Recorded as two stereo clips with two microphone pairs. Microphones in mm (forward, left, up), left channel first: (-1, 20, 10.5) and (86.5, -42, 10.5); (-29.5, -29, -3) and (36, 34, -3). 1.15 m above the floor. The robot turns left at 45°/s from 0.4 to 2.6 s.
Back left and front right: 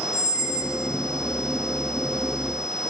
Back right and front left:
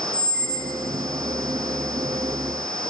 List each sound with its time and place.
0.1 s a squeak: 30° right, 5.5 m; by 0.8 s 45° right, 5.5 m